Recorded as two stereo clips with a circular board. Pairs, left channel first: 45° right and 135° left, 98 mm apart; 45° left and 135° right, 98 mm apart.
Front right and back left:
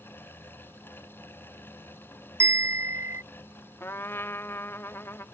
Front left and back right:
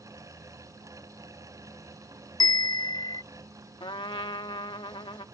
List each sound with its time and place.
2.4 s a bell: 80° left
3.8 s a trumpet: 20° left